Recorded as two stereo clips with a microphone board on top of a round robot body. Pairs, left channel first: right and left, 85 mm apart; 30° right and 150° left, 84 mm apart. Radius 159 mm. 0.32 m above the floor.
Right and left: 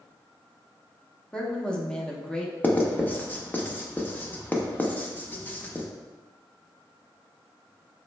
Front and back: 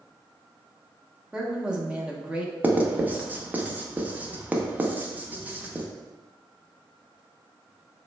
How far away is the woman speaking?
About 0.9 m.